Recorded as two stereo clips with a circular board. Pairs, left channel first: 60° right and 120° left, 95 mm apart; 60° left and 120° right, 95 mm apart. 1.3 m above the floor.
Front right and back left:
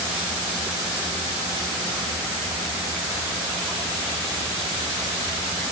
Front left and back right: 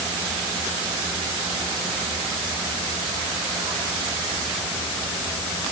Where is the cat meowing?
No cat meowing in this recording.